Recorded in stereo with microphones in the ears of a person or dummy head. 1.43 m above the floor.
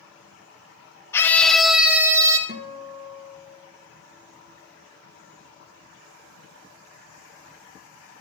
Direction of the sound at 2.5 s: 40° right (ahead or behind).